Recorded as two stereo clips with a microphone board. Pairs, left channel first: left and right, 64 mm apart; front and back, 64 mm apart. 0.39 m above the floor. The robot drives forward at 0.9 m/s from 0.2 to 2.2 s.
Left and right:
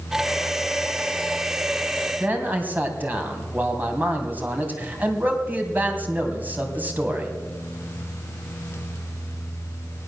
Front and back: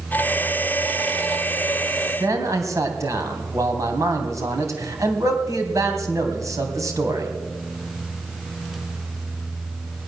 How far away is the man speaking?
About 3 m.